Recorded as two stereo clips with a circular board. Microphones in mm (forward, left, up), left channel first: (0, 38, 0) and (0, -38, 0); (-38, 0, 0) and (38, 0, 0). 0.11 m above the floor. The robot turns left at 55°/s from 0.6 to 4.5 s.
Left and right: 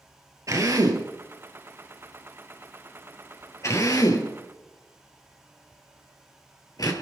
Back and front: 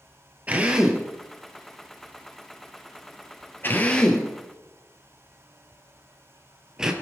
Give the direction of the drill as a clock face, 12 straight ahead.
2 o'clock.